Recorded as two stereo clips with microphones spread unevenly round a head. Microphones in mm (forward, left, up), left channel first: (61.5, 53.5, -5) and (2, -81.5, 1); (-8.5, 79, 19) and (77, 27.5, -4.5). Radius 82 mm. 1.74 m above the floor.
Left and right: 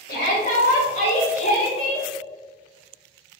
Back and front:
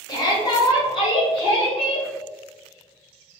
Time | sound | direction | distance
0.1 | a shout | 105° left | 1.6 m